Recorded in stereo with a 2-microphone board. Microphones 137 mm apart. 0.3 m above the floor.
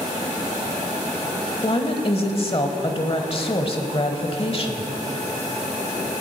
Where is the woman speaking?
40° left (ahead or behind), 1.2 m.